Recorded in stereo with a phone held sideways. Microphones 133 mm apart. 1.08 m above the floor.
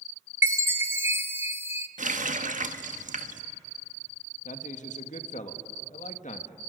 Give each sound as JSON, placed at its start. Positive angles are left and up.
{"t": 0.4, "sound": "a chime", "side_deg": -20, "distance_m": 0.9}
{"t": 2.0, "sound": "a running tap", "side_deg": -75, "distance_m": 1.0}
{"t": 4.5, "sound": "a man speaking", "side_deg": 70, "distance_m": 1.6}